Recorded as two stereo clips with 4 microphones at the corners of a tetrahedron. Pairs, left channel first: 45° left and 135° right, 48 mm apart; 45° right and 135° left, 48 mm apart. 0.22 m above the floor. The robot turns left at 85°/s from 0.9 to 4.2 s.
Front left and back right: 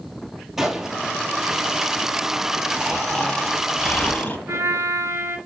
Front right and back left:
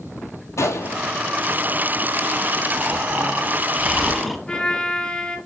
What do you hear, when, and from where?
0.6 s a gunshot: 55° right, 1.2 m; by 1.0 s 65° right, 1.2 m
2.8 s snoring: 160° left, 1.2 m; by 4.4 s 40° left, 1.2 m
4.5 s a trumpet: 115° right, 0.9 m